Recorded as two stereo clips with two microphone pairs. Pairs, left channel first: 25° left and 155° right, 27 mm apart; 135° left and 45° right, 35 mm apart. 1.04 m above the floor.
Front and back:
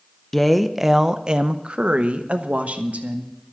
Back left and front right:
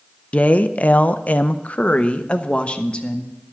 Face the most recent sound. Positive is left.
turn(degrees=-165)